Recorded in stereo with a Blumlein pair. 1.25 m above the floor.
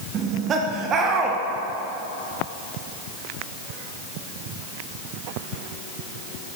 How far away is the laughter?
About 0.6 m.